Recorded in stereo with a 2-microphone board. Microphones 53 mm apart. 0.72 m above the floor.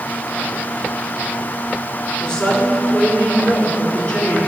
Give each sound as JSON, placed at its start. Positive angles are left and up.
{"t": 2.2, "sound": "a woman speaking", "side_deg": 15, "distance_m": 2.5}